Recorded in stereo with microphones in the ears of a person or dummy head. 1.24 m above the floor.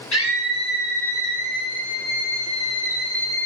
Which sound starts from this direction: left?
A scream, at 0.1 s.